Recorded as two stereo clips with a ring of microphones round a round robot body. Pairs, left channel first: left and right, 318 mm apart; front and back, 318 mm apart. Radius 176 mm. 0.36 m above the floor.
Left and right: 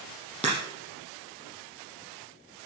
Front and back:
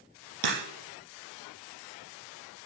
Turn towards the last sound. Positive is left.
turn(degrees=180)